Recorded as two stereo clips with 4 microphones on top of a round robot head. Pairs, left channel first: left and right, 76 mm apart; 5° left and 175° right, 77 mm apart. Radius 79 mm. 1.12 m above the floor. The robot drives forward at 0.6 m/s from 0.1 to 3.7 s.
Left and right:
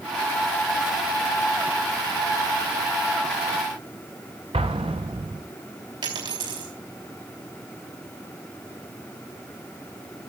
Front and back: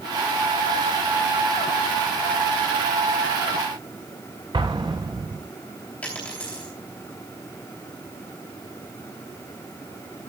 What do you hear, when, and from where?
4.5 s an explosion: 120° right, 0.6 m
6.0 s a dropped coin: 70° right, 3 m